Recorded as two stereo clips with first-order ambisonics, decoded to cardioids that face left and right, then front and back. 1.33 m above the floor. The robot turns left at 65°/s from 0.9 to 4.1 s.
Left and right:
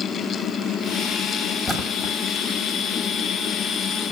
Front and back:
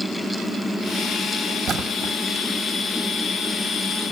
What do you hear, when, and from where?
1.7 s a splash: 165° left, 1.2 m; by 2.2 s 130° left, 1.2 m